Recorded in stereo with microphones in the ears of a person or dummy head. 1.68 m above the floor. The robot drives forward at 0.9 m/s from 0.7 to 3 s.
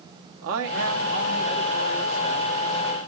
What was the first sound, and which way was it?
A man speaking, 60° right (ahead or behind).